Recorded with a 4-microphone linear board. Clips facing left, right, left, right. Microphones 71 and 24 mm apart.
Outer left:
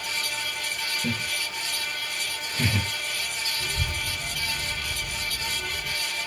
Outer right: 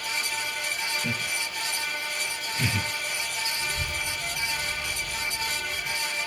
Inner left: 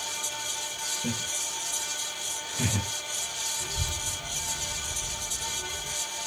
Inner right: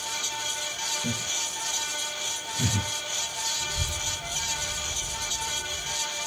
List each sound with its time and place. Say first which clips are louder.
1.0 s laughter: outer left 1 dB, inner right 2 dB; 20° left (ahead or behind), 1.4 m
3.6 s a child speaking: even, inner right 2 dB; 30° left (ahead or behind), 0.6 m